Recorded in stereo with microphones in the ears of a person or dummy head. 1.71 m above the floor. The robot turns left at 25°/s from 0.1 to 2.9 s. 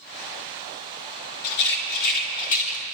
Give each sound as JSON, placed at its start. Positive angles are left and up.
{"t": 1.4, "sound": "a rattle", "side_deg": 65, "distance_m": 2.5}